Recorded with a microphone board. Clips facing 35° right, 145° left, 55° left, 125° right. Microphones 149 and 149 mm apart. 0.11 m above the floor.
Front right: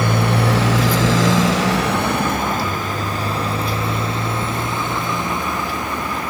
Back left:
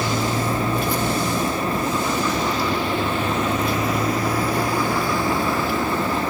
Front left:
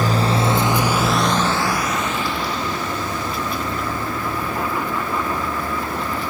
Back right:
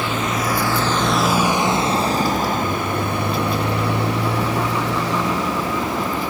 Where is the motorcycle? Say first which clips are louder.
Front right 4 dB, front left 3 dB; 5° left; by 6.3 s 110° right.